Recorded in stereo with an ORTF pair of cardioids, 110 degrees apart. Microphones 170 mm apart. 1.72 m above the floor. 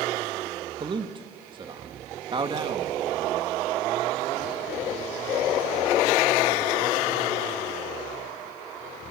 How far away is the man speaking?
About 2.5 m.